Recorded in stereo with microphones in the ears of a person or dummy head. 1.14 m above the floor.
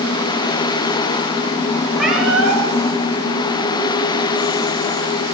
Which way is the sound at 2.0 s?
Centre (ahead or behind).